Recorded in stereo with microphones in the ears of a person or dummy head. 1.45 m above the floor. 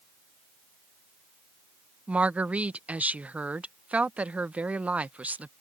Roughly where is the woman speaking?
Centre.